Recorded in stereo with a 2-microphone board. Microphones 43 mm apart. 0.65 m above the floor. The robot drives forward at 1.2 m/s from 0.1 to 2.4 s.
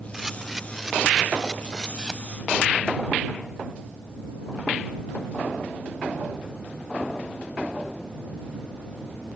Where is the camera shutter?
10° right (ahead or behind); by 2.2 s 5° right (ahead or behind).